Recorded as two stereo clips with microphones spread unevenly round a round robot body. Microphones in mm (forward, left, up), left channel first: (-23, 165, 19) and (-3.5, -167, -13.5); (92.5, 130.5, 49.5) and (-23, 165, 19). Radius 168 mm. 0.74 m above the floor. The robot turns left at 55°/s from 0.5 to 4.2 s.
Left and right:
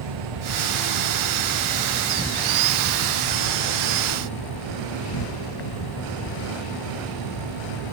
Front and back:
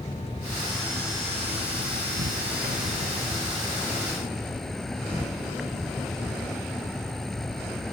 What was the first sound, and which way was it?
An insect, 85° right.